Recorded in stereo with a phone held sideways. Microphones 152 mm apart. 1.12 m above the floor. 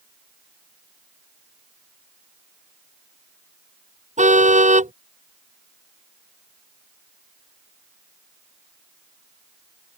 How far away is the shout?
No shout in this recording.